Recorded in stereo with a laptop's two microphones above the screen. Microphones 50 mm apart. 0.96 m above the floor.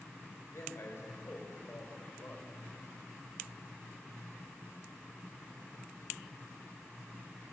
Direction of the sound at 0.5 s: 65° left (ahead or behind).